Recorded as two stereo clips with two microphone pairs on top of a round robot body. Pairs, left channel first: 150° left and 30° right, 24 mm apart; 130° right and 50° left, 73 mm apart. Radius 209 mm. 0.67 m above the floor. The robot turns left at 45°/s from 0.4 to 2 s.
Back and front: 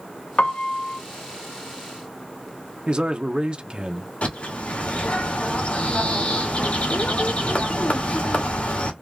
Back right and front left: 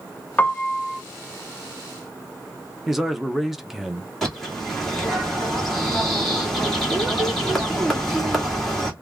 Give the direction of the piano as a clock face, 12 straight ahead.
7 o'clock.